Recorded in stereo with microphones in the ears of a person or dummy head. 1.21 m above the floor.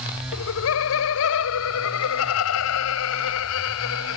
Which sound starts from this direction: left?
Laughter, at 0.3 s.